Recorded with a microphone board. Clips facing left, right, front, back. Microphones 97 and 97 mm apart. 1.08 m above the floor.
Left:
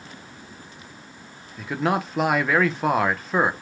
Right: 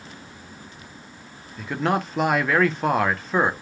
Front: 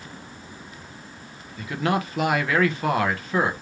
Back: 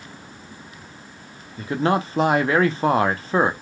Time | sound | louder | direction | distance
1.6 | a man speaking | even, back 4 dB | 175° left | 0.7 m